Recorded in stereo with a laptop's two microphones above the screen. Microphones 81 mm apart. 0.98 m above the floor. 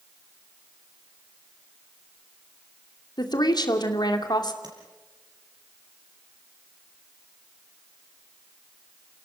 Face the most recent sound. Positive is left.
turn(degrees=-60)  # may be behind; listen again after turning